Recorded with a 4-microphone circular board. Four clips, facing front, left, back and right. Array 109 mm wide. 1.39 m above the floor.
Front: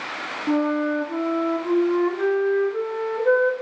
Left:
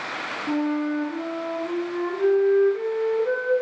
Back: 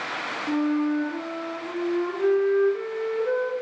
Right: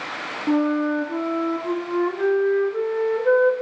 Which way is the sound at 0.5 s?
50° right.